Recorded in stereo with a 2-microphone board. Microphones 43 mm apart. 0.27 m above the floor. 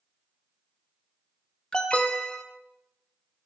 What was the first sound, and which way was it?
An alarm, 20° left (ahead or behind).